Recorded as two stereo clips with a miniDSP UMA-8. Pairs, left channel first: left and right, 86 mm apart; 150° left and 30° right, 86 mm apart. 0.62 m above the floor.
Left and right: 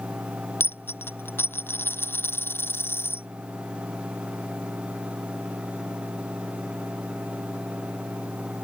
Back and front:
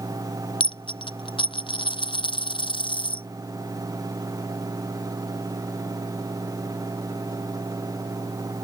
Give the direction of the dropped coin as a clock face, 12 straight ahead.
7 o'clock.